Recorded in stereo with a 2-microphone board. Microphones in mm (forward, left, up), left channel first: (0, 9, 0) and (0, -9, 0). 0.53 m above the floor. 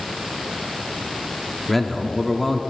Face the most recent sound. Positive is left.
turn(degrees=15)  # may be behind; listen again after turning